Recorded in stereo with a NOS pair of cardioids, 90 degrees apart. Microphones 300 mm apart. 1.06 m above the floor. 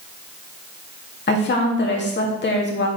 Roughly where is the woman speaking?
Ahead left.